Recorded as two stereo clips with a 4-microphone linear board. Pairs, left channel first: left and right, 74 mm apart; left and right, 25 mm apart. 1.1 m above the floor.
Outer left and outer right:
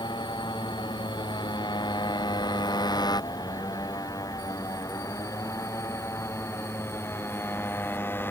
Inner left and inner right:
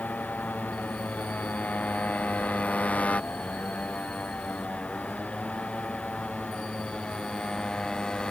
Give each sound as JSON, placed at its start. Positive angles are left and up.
{"t": 0.0, "sound": "a motorcycle", "side_deg": 90}